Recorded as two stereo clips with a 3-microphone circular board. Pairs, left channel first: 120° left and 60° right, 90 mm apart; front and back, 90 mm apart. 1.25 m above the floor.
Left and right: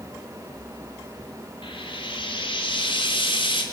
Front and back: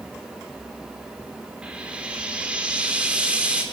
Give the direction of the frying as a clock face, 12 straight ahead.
9 o'clock.